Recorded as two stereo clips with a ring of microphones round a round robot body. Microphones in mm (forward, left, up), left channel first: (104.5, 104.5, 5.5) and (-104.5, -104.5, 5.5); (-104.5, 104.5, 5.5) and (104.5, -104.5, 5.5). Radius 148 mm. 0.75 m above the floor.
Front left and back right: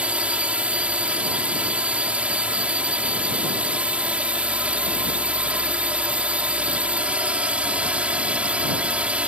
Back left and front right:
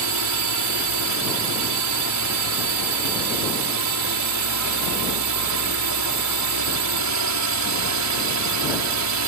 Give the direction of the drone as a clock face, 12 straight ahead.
2 o'clock.